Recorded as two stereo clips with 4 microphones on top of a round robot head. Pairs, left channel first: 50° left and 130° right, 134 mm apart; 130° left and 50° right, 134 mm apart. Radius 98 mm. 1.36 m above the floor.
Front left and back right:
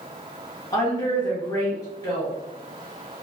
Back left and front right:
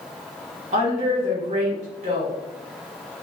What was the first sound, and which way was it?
A woman speaking, 10° right.